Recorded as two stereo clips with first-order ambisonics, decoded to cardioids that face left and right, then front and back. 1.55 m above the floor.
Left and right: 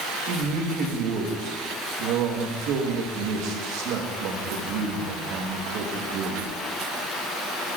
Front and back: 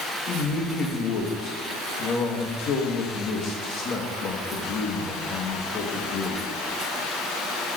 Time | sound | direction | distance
0.3 | a man speaking | 55° right | 1.9 m